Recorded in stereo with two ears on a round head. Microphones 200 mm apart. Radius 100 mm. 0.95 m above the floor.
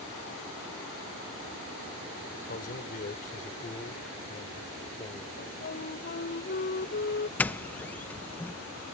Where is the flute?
45° left (ahead or behind).